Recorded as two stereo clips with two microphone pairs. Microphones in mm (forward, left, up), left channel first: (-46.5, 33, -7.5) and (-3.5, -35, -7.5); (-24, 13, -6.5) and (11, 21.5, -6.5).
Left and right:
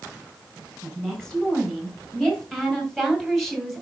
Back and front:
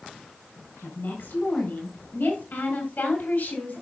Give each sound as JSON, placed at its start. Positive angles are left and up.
{"t": 0.8, "sound": "a woman speaking", "azimuth_deg": -155, "distance_m": 5.0}